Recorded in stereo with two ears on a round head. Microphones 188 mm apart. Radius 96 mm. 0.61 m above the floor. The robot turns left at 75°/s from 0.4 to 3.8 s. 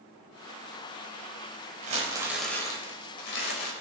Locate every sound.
1.8 s crumpling: 135° right, 3 m; by 3.7 s 85° left, 3 m